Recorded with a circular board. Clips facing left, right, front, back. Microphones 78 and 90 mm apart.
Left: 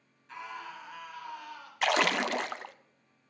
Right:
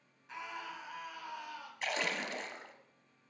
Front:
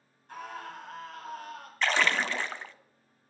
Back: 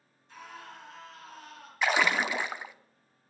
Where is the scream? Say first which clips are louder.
Left 2 dB, front 6 dB; 10° right, 2.5 m.